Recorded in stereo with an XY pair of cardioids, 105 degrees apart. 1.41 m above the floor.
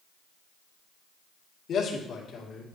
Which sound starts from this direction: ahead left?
A man speaking, at 1.7 s.